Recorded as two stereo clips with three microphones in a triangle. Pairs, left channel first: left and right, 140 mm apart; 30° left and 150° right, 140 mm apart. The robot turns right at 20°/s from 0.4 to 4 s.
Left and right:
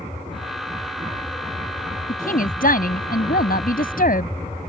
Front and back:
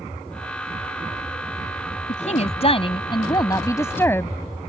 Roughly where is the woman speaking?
Ahead left.